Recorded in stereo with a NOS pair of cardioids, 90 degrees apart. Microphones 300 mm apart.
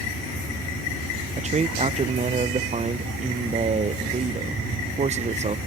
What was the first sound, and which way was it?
A man speaking, 20° right.